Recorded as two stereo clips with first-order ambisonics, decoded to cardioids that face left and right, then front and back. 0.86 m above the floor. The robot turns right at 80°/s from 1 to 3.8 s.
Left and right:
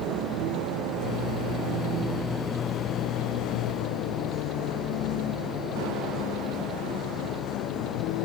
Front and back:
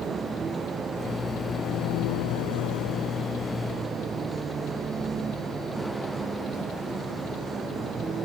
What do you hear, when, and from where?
0.0 s a vehicle: 110° right; by 8.2 s 115° left